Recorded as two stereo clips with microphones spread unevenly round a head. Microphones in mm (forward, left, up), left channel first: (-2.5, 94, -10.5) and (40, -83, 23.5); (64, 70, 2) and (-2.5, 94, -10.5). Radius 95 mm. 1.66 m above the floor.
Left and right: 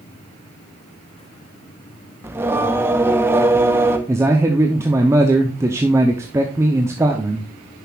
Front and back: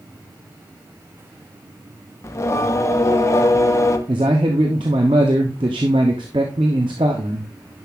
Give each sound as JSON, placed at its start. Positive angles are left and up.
{"t": 2.2, "sound": "singing", "azimuth_deg": -10, "distance_m": 0.9}
{"t": 4.1, "sound": "a man speaking", "azimuth_deg": -150, "distance_m": 0.7}